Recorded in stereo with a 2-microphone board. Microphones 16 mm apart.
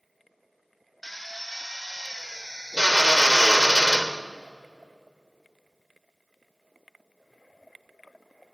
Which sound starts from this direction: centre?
A drill, at 1.0 s.